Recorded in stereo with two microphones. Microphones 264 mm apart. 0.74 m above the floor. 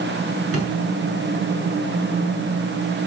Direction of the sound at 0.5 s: 60° right (ahead or behind).